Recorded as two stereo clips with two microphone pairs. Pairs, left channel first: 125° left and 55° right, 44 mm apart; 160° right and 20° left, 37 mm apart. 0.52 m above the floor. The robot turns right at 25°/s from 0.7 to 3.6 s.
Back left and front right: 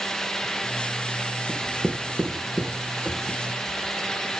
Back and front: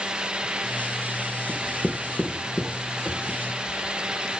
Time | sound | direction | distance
1.5 | writing | 140° right | 1.2 m